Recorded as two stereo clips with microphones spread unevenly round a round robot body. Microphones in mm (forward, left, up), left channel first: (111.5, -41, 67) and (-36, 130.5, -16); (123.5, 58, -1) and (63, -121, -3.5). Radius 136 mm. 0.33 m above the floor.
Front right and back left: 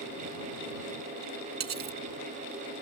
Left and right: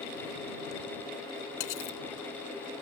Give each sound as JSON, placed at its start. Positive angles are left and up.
{"t": 1.6, "sound": "cutlery clinking", "azimuth_deg": 95}